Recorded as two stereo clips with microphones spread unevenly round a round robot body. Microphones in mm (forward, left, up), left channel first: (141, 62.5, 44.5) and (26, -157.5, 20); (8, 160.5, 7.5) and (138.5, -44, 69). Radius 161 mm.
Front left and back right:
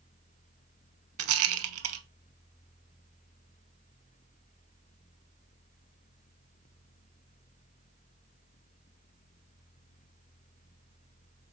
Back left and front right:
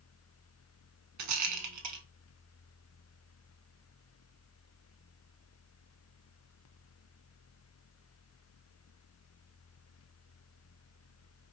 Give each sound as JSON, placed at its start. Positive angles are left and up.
{"t": 1.2, "sound": "a rattle", "azimuth_deg": -80, "distance_m": 0.5}